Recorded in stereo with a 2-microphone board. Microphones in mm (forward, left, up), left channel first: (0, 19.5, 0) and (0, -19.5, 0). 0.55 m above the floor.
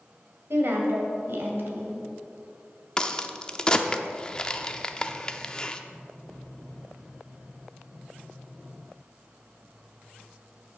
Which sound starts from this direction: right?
A woman speaking, at 0.5 s.